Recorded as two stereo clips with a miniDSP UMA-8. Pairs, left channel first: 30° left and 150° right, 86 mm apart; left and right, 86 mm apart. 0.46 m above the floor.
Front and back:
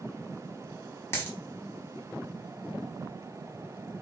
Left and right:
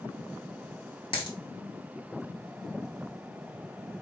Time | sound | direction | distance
1.1 | a dropped coin | 90° left | 1.1 m